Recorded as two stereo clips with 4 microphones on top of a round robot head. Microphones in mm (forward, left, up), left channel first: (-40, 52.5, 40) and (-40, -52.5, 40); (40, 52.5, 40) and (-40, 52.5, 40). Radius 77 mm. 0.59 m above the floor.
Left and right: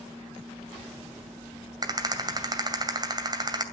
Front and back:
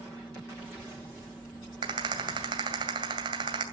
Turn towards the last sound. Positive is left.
turn(degrees=-140)